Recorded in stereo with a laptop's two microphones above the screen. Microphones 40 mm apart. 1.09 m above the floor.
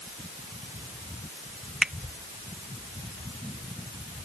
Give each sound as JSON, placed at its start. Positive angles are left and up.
{"t": 1.8, "sound": "a finger snap", "side_deg": -25}